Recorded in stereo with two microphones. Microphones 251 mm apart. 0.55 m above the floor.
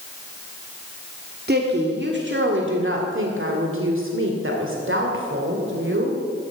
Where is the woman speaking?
40° right (ahead or behind), 1.7 m; by 6.2 s 50° right (ahead or behind), 3 m.